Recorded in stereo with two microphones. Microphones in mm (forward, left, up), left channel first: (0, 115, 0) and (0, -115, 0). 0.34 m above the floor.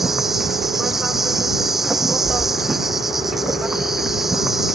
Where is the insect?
Centre (ahead or behind).